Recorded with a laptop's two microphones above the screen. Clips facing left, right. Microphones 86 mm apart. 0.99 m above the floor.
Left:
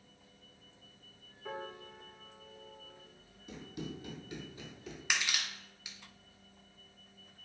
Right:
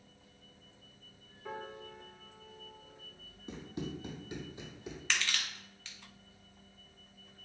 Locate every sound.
1.4 s a piano: centre (ahead or behind), 0.6 m
3.5 s running footsteps: 35° right (ahead or behind), 1.9 m; by 5.0 s 15° right (ahead or behind), 1.3 m
5.1 s crushing: 15° left (ahead or behind), 0.7 m